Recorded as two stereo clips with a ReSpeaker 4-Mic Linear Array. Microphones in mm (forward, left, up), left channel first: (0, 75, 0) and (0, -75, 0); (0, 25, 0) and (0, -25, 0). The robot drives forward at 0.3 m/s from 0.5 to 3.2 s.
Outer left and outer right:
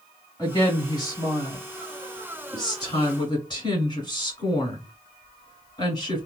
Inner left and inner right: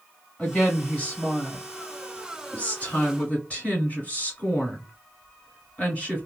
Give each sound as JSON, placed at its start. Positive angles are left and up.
{"t": 0.4, "sound": "a woman speaking", "side_deg": 25, "distance_m": 1.7}